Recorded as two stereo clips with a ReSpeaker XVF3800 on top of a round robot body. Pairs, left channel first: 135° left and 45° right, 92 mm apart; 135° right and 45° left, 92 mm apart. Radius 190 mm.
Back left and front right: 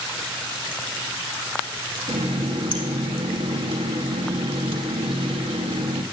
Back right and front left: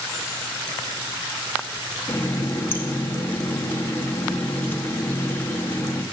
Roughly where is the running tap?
Ahead right.